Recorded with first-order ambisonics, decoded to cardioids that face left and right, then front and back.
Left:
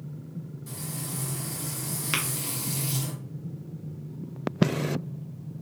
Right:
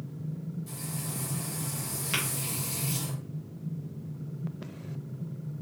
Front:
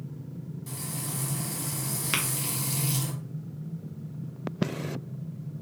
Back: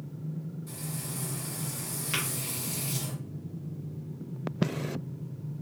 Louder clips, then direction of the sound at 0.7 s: Left 3 dB, front 5 dB; 25° left.